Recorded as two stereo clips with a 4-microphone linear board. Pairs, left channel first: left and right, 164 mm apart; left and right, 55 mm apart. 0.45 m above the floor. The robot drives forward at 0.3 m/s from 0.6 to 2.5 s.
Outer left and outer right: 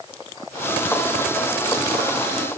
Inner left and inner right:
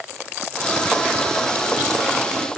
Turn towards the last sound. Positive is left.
No sound to turn to.